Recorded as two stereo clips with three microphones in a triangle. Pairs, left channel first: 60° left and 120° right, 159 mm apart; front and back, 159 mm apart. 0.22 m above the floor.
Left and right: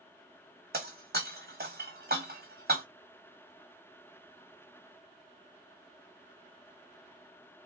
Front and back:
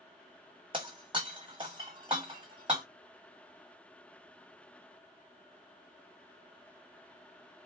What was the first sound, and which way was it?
Breaking glass, 120° right.